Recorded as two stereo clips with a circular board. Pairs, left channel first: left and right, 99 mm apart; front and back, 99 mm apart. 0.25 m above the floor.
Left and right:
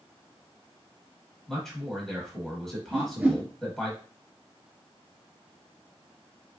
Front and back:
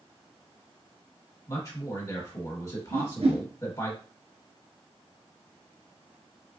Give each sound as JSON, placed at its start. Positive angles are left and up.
{"t": 1.5, "sound": "a man speaking", "azimuth_deg": 5, "distance_m": 1.4}
{"t": 2.9, "sound": "a whoosh", "azimuth_deg": -165, "distance_m": 0.9}